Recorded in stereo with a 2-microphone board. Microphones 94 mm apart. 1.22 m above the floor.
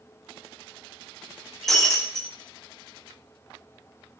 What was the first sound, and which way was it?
Breaking glass, 5° left (ahead or behind).